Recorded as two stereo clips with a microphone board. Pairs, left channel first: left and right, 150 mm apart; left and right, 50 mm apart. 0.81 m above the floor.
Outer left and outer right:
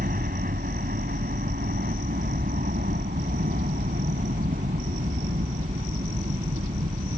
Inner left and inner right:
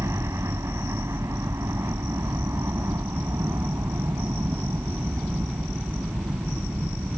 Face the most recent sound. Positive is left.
turn(degrees=-80)